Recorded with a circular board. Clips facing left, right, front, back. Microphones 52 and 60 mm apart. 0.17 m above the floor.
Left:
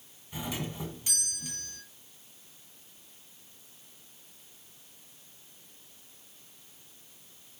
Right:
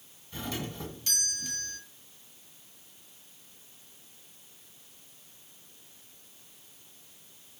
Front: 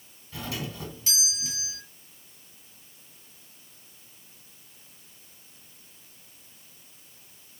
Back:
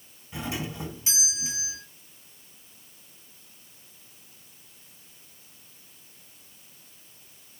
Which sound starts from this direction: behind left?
A doorbell, at 0.3 s.